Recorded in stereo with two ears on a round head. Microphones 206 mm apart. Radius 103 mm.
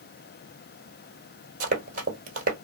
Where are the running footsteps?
35° right (ahead or behind), 1.2 m.